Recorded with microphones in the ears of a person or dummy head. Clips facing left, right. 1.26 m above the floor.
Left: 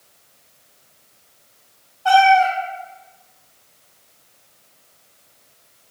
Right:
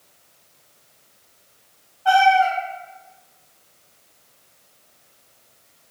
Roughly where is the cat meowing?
Left.